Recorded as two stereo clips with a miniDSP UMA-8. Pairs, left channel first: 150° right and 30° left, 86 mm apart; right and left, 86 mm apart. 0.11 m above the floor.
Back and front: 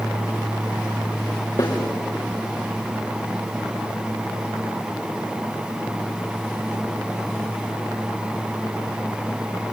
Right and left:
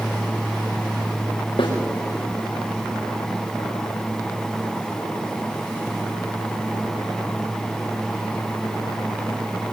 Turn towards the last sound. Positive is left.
turn(degrees=-110)